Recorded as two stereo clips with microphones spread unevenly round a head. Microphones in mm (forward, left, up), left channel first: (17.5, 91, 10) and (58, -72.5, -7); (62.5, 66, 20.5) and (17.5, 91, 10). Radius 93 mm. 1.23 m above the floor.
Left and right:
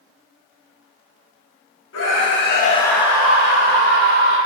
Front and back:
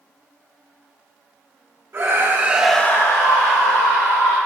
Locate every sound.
1.9 s a scream: 110° left, 1.2 m; by 4.4 s 50° right, 1.9 m